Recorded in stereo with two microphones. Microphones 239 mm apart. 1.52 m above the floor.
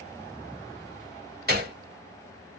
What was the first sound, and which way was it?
A gunshot, 40° right (ahead or behind).